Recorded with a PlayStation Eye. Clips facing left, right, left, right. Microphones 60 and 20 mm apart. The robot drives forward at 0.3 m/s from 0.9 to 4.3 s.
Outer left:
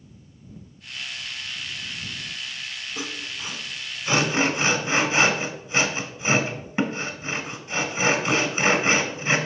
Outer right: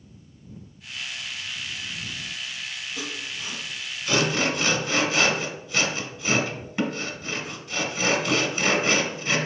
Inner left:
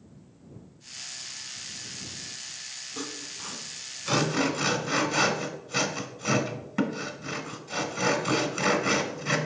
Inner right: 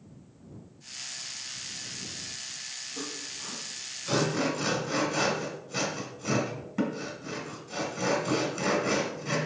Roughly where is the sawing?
Left.